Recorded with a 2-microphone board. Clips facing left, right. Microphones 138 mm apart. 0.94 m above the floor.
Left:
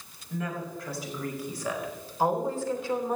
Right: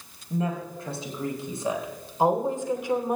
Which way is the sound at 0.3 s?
30° right (ahead or behind).